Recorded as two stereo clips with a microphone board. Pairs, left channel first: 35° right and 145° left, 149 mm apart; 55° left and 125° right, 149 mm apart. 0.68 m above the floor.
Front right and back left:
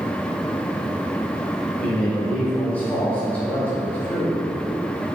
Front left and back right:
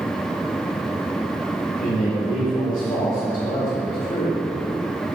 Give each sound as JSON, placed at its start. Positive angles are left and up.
{"t": 1.8, "sound": "a man speaking", "azimuth_deg": 45, "distance_m": 2.0}